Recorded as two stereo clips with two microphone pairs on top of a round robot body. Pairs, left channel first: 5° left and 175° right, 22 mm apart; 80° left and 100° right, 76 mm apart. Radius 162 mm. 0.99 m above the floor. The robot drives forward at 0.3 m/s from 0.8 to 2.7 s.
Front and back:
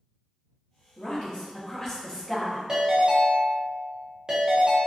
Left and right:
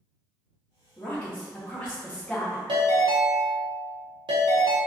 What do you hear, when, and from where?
1.0 s a woman speaking: 20° left, 1.0 m; by 2.6 s 60° left, 0.8 m
2.7 s a ringtone: 110° right, 0.6 m